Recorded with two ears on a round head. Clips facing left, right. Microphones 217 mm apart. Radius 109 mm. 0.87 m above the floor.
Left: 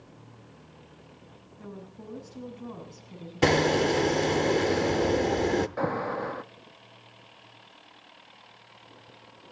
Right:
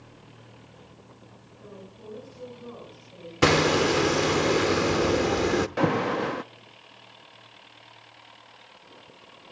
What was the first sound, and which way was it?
A woman speaking, 70° left (ahead or behind).